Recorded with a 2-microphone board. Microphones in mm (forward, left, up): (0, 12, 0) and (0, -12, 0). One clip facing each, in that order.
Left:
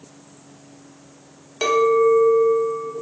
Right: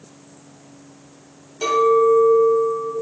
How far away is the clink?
About 1.0 m.